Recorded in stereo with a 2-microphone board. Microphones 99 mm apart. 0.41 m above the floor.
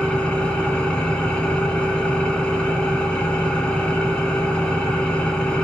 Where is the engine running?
10° left (ahead or behind), 3 m.